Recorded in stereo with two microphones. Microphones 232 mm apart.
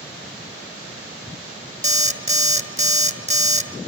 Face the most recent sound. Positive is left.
turn(degrees=-30)  # may be behind; listen again after turning